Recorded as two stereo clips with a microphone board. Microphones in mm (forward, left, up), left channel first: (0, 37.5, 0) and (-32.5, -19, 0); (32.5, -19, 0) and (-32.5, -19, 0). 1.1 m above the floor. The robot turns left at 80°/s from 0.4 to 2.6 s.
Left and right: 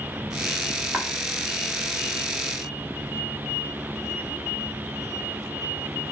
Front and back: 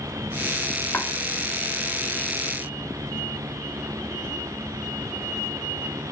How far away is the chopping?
About 0.5 m.